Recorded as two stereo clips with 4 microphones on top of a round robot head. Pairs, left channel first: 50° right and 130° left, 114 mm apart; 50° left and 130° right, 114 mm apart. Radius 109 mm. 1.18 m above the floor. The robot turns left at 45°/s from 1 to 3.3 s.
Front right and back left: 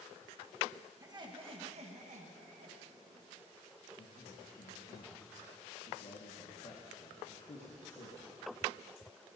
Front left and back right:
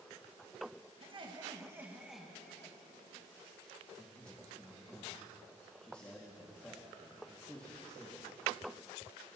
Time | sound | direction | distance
1.0 | laughter | 170° right | 1.5 m
4.0 | a man speaking | 30° right | 1.8 m